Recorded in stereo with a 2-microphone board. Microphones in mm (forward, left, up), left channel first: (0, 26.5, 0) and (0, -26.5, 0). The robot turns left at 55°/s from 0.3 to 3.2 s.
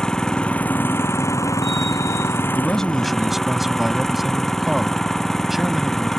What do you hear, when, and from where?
0.0 s an engine running: 165° left; by 6.2 s 10° left
2.5 s a man speaking: 30° left; by 6.1 s 5° right